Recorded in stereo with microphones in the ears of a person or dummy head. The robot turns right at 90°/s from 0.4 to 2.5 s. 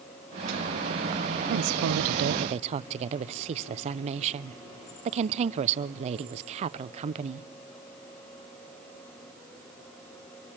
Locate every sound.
1.5 s a woman speaking: 130° right, 0.6 m; by 7.5 s 35° right, 0.6 m